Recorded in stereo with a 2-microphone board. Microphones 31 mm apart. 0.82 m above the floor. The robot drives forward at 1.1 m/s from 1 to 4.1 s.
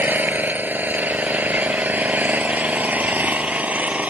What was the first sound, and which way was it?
An engine running, 75° right (ahead or behind).